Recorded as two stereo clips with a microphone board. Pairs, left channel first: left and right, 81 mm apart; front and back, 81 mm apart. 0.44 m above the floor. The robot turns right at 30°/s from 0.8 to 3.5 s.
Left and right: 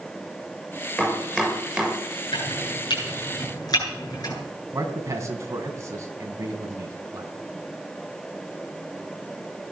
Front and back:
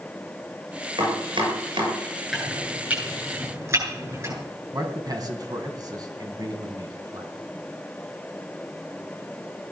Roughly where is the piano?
I don't hear a piano.